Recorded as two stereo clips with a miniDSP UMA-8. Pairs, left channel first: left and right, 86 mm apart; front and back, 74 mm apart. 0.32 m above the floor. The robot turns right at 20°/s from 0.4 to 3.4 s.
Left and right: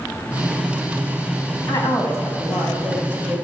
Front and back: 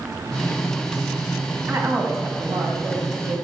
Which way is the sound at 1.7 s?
130° left.